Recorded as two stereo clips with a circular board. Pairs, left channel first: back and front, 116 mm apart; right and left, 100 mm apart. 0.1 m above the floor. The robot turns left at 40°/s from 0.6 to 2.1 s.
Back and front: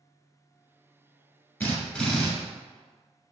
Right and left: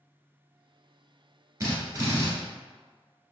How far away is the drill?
About 1.0 m.